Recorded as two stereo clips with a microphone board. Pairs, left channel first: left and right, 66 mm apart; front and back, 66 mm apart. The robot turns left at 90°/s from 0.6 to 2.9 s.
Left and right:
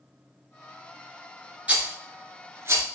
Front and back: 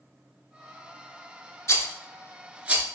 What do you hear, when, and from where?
1.7 s a rattle: 25° right, 0.6 m; by 2.9 s 130° right, 0.6 m